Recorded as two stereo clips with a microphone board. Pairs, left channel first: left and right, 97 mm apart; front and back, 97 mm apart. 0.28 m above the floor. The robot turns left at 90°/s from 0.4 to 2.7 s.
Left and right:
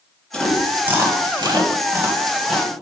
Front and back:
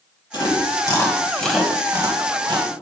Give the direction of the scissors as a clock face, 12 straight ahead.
No scissors in this recording.